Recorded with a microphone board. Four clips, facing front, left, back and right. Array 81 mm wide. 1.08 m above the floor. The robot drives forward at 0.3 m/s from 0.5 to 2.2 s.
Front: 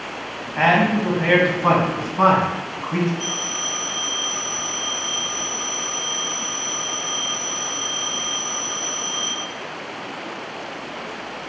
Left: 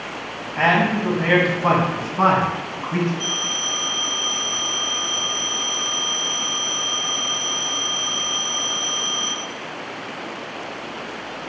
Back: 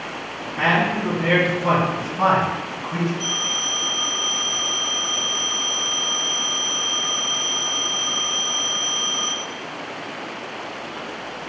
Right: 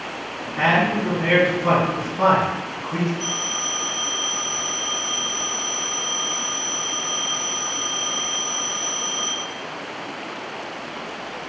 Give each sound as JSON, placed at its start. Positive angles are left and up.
{"t": 0.6, "sound": "a man speaking", "azimuth_deg": 40, "distance_m": 1.6}
{"t": 3.2, "sound": "a phone ringing", "azimuth_deg": 105, "distance_m": 2.0}